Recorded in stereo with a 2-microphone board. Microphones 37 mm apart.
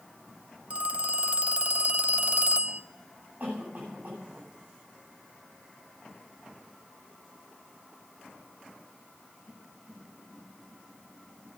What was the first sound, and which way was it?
A phone ringing, 40° right (ahead or behind).